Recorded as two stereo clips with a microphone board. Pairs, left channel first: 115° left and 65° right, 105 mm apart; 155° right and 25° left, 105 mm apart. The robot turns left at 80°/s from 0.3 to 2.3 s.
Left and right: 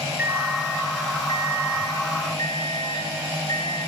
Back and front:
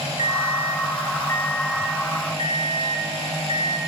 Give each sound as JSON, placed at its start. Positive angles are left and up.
{"t": 0.2, "sound": "an alarm clock", "azimuth_deg": -140, "distance_m": 0.7}